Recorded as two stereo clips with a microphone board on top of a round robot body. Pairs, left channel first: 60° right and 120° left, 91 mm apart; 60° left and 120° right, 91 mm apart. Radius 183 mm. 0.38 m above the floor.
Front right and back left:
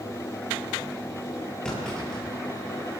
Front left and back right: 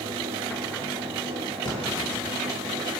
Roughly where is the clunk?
Ahead.